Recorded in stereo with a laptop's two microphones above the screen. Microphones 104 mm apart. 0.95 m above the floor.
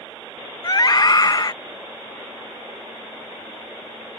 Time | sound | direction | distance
0.6 | a scream | 40° left (ahead or behind) | ?